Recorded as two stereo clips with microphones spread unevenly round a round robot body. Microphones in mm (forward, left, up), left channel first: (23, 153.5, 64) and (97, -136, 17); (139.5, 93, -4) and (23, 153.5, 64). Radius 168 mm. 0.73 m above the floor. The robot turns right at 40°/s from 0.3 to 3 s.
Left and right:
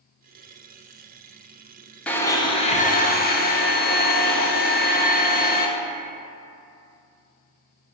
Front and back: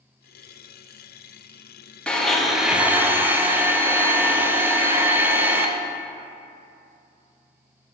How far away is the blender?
About 0.7 m.